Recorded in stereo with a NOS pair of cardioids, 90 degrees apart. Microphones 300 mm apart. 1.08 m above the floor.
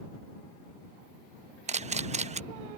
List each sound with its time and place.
1.7 s a camera shutter: 25° right